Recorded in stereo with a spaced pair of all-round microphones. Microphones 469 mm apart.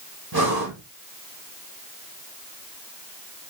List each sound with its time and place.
0.3 s breathing: 50° right (ahead or behind), 1.4 m